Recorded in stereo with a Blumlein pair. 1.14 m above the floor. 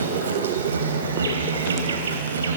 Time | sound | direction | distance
0.0 | an insect | 70° right | 3 m